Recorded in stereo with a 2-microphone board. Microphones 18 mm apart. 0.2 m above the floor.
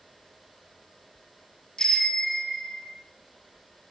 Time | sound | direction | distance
1.8 | a bicycle bell | 45° left (ahead or behind) | 3 m